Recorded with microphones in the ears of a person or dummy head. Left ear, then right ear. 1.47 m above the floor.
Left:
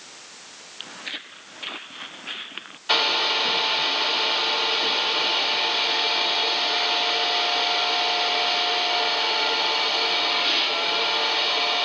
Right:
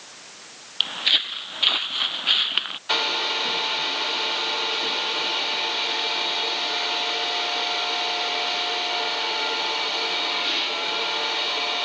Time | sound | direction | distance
0.8 | footsteps | 35° right (ahead or behind) | ?
2.9 | a hair dryer | 10° left (ahead or behind) | ?